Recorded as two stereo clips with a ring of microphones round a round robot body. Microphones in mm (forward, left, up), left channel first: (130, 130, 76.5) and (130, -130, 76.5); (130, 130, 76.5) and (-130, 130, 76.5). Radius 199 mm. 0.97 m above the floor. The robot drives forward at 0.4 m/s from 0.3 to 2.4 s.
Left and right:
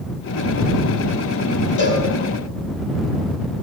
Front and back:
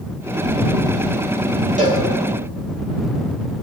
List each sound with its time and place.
1.8 s a cowbell: 120° left, 5 m